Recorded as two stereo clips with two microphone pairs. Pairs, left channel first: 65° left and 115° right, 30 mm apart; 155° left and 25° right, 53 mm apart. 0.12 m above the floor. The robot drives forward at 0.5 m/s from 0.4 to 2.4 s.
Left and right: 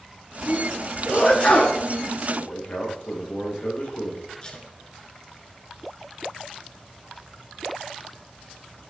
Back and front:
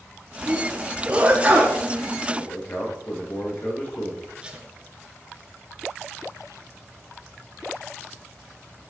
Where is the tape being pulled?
25° left, 1.7 m.